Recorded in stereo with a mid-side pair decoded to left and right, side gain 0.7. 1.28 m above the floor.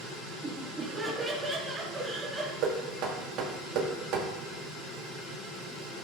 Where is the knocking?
55° right, 2 m.